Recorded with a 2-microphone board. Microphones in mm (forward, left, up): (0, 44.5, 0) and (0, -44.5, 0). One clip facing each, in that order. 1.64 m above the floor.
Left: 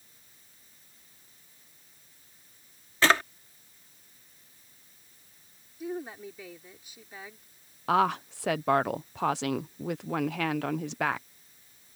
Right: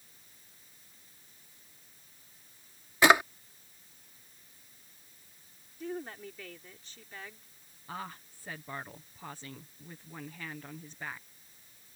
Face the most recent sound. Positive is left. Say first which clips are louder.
# left 18 dB
turn(degrees=85)